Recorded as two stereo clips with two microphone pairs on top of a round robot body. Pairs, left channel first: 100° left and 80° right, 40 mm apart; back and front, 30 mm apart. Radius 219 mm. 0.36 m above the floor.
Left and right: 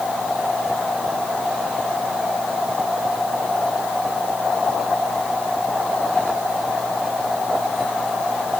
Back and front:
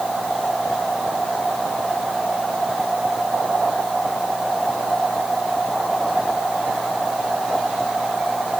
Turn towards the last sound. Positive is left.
No sound to turn to.